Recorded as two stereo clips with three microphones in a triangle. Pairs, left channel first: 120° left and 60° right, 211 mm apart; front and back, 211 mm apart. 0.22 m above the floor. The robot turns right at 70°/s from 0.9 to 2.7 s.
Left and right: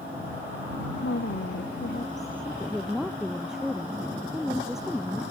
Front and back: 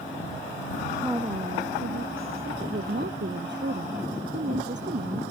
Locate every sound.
1.0 s a woman speaking: 95° left; by 5.2 s 150° right